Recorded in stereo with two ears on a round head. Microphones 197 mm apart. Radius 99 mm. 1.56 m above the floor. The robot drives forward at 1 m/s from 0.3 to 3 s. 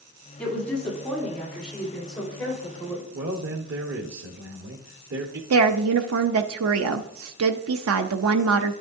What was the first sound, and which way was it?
A woman speaking, 5° left (ahead or behind).